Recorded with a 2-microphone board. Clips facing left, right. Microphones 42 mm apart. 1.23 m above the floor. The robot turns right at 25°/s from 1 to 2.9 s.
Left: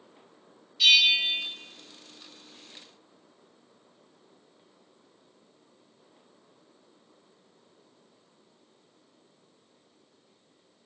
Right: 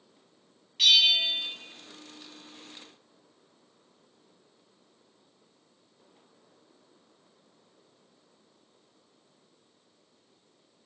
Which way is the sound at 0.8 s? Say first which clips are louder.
Left 1 dB; 65° right (ahead or behind).